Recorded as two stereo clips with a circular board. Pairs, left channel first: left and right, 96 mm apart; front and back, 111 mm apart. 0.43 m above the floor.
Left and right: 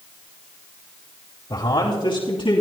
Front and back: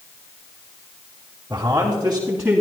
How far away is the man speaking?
About 2.5 m.